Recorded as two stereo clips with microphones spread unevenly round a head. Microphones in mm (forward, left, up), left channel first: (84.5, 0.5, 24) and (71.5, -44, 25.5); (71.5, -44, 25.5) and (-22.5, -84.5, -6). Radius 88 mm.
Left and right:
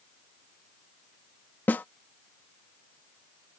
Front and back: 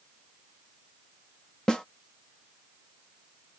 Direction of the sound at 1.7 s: 70° left.